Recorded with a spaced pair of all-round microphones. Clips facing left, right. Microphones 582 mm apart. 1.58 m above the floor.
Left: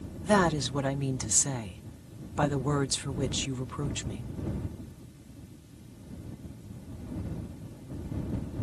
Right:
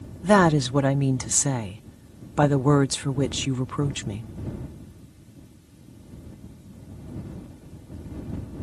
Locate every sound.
0.2 s a woman speaking: 75° right (ahead or behind)